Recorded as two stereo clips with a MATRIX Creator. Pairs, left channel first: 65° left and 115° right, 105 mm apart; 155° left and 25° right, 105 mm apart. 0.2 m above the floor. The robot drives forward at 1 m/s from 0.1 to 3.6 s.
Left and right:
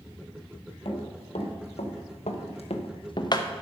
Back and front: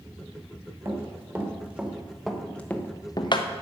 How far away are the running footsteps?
About 4.5 m.